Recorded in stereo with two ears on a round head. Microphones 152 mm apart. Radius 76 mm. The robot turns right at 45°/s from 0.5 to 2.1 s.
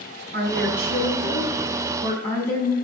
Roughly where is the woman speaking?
Ahead right.